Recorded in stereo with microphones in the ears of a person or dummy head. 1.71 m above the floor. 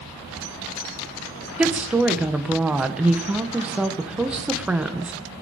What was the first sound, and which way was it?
A woman speaking, 5° right (ahead or behind).